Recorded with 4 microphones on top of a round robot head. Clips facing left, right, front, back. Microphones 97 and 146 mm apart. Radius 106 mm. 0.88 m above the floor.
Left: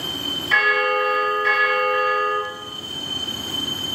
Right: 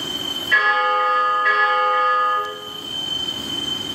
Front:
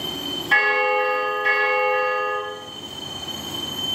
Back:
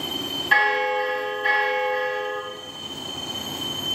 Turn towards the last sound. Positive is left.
turn(degrees=95)